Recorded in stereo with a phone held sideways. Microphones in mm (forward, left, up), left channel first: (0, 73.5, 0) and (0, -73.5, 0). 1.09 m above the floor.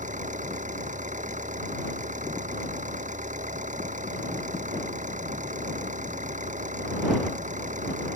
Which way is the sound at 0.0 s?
60° right (ahead or behind).